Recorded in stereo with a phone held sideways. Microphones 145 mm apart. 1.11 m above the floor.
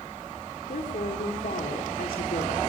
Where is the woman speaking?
70° left (ahead or behind), 2.5 m; by 2.7 s 65° left (ahead or behind), 2.5 m.